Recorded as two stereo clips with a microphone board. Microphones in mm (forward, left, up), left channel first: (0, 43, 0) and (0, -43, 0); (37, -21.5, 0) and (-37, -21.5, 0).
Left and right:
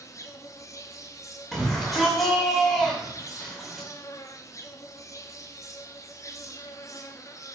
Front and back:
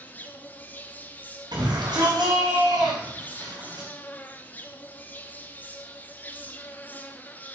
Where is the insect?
55° left, 1.1 m.